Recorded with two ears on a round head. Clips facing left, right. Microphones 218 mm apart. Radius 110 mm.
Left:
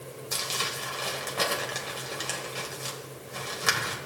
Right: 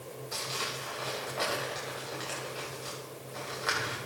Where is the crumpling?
70° left (ahead or behind), 2.5 m.